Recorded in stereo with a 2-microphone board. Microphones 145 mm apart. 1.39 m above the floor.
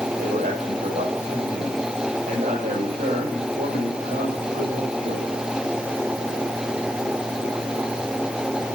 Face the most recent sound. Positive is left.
turn(degrees=-85)